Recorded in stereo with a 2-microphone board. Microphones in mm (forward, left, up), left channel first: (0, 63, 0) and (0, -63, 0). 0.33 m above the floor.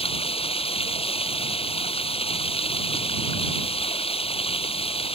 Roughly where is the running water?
Left.